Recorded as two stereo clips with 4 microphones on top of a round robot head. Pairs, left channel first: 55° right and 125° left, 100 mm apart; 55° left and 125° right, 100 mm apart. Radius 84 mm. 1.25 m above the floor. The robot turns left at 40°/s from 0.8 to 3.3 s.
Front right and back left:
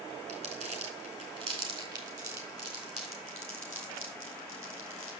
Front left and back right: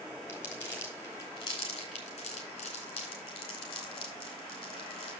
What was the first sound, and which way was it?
Crumpling, 125° left.